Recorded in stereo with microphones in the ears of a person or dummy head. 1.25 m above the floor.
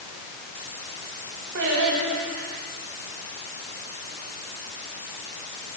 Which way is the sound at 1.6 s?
60° right (ahead or behind).